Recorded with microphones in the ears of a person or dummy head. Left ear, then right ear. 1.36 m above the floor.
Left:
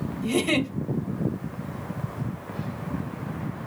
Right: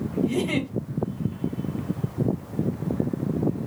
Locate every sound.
0.2 s a giggle: 70° left (ahead or behind), 1.4 m